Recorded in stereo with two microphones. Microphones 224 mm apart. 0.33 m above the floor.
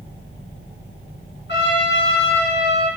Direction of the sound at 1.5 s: 55° left (ahead or behind).